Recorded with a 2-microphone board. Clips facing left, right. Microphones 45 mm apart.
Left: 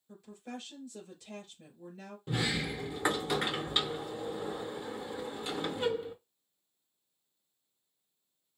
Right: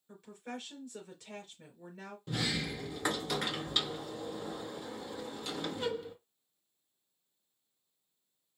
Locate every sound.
0.1 s a woman speaking: 65° right (ahead or behind), 3.5 m
2.3 s a sliding door: 20° left (ahead or behind), 0.6 m